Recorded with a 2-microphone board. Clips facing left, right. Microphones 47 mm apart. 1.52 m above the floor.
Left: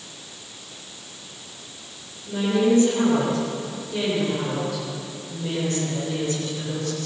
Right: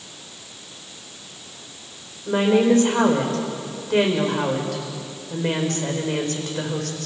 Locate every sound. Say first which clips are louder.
2.3 s a woman speaking: right 3 dB; 65° right (ahead or behind), 6 m